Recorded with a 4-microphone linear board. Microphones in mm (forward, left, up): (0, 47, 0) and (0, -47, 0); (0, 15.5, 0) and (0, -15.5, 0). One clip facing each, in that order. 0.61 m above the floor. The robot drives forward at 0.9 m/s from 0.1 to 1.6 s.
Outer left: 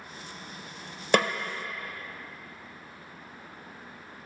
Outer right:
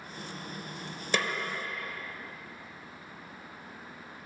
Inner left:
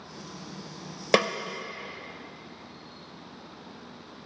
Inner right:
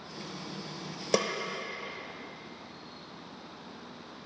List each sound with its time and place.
1.1 s a snare drum: 55° left (ahead or behind), 0.5 m; by 1.3 s 45° left (ahead or behind), 0.6 m